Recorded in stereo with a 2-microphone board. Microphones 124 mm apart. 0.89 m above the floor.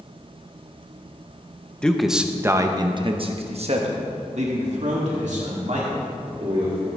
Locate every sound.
1.8 s a man speaking: 5° left (ahead or behind), 0.8 m; by 6.9 s 70° right (ahead or behind), 3 m